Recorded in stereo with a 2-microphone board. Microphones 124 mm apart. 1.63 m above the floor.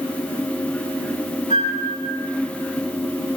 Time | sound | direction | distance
1.5 | a flute | 85° left | 4.5 m